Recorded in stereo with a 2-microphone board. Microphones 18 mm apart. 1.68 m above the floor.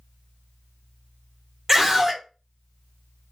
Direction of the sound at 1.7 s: 15° right (ahead or behind).